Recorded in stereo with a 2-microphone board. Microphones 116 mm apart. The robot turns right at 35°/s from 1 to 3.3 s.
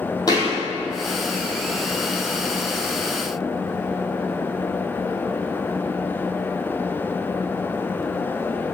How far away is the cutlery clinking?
No cutlery clinking in this recording.